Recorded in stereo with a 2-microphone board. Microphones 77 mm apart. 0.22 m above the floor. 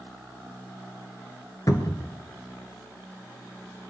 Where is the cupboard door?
50° left (ahead or behind), 1.1 m.